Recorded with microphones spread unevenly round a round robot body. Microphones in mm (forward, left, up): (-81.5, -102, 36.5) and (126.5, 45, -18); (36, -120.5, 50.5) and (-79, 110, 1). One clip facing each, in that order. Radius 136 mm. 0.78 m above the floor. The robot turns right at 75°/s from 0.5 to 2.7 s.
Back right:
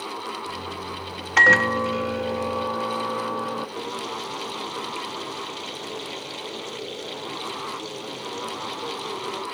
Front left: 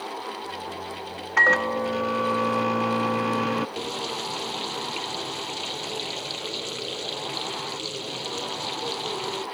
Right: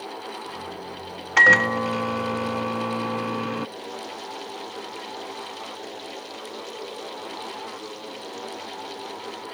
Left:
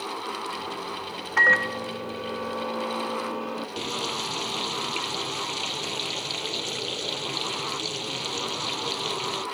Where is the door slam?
No door slam in this recording.